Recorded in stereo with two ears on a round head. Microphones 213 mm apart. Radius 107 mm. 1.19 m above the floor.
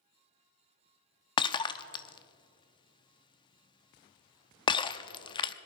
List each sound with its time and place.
1.4 s breaking glass: 20° left (ahead or behind), 0.6 m